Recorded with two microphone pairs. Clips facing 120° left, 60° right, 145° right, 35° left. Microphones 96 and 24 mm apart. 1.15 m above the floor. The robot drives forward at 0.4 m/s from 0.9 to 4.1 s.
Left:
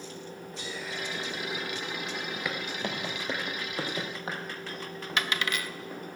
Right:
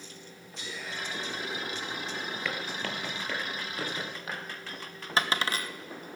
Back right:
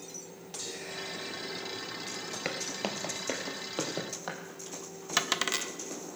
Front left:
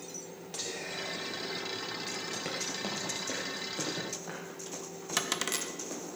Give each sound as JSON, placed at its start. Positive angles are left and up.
{"t": 0.6, "sound": "whispering", "azimuth_deg": 70, "distance_m": 4.0}
{"t": 2.5, "sound": "footsteps", "azimuth_deg": -170, "distance_m": 1.4}
{"t": 5.2, "sound": "a dropped coin", "azimuth_deg": -90, "distance_m": 0.5}